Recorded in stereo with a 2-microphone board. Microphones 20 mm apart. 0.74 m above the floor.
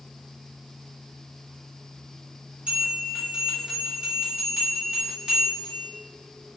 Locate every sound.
2.7 s a bell: 50° right (ahead or behind), 1.4 m